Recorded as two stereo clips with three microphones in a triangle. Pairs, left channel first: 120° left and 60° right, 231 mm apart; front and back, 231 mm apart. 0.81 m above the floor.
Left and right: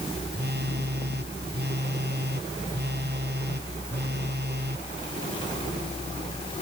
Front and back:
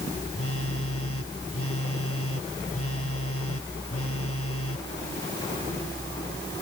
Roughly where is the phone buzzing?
Ahead.